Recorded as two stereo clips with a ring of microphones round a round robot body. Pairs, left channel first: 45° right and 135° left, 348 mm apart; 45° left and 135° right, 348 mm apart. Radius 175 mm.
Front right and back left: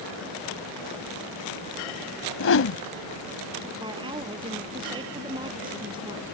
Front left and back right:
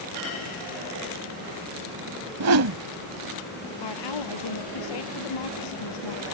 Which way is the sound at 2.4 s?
95° right.